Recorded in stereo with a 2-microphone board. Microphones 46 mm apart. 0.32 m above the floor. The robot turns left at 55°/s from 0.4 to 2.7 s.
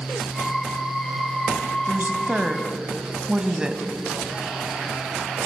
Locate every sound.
1.9 s a woman speaking: 115° right, 2 m; by 3.8 s 160° right, 2 m